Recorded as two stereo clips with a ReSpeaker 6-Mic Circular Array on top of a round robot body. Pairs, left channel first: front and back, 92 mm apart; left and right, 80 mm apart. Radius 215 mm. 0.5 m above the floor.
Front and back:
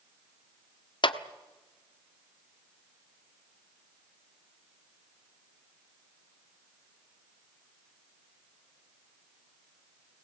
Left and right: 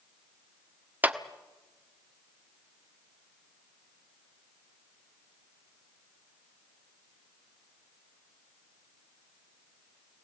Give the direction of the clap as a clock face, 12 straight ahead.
1 o'clock.